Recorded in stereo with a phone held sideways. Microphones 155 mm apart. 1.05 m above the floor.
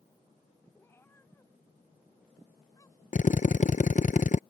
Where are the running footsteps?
No running footsteps in this recording.